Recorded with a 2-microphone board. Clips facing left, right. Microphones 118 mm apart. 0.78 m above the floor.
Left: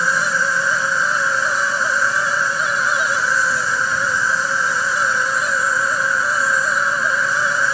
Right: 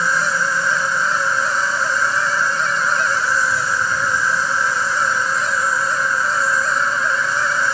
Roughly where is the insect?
Right.